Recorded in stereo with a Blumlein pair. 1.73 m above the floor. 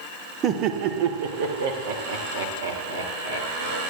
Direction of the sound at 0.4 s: 30° right.